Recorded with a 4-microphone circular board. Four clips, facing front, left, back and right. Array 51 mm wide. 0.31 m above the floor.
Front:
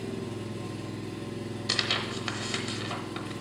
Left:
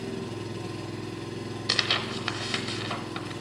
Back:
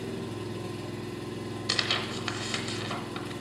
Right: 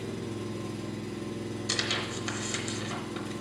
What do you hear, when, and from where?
0.0 s an engine running: 105° left, 2 m
1.7 s tearing paper: 90° left, 0.9 m